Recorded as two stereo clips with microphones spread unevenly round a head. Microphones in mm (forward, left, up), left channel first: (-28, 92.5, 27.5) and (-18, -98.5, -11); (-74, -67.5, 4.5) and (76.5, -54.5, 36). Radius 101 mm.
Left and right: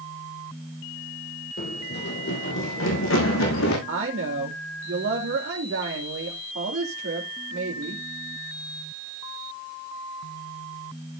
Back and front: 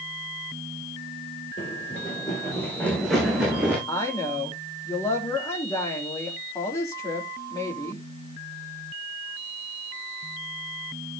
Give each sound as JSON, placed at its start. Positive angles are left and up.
{"t": 1.6, "sound": "running footsteps", "azimuth_deg": 125, "distance_m": 3.0}
{"t": 3.9, "sound": "a woman speaking", "azimuth_deg": -110, "distance_m": 3.0}